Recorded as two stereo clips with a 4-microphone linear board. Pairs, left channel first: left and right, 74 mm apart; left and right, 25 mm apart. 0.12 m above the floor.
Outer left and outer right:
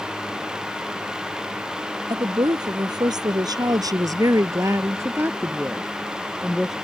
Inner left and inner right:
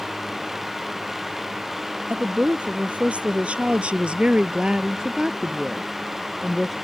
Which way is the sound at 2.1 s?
65° right (ahead or behind).